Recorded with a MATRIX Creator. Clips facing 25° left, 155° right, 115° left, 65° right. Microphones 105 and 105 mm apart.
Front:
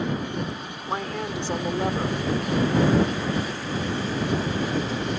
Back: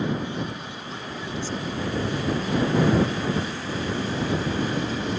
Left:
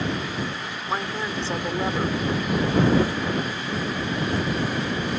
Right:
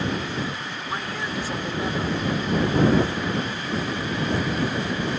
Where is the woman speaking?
50° left.